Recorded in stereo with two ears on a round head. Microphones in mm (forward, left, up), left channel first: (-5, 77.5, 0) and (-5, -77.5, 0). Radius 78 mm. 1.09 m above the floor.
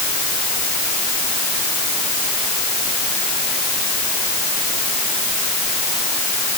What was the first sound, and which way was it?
Only background noise.